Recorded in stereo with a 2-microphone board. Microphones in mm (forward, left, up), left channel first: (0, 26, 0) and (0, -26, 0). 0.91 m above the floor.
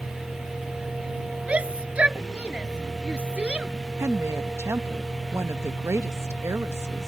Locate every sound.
0.0 s a vehicle: 80° left
1.5 s a shout: 20° right (ahead or behind)
4.0 s a woman speaking: 65° right (ahead or behind)